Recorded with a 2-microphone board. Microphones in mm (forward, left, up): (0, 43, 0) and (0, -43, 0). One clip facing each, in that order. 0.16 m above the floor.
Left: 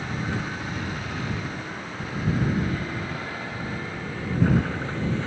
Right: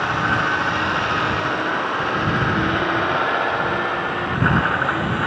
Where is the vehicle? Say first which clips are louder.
Right 10 dB; 85° right; by 5.3 s 75° right (ahead or behind).